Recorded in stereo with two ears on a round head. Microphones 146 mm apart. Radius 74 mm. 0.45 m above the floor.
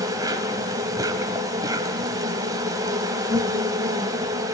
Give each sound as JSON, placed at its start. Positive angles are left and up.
{"t": 0.0, "sound": "an insect", "side_deg": -20, "distance_m": 2.0}